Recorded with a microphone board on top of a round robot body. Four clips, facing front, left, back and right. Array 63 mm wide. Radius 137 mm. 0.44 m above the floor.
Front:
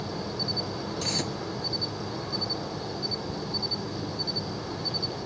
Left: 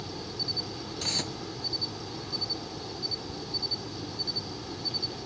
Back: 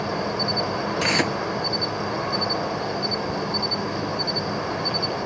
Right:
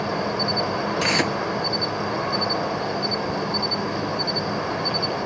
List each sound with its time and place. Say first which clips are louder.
0.0 s an insect: right 15 dB, back 8 dB; 130° right
1.0 s tearing paper: right 14 dB, back 12 dB; 145° right